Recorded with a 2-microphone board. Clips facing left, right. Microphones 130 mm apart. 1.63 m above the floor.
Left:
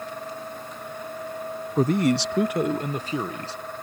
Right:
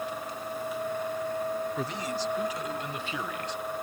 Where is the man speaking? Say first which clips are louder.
Left 11 dB; 40° left (ahead or behind); by 3.6 s 30° left (ahead or behind).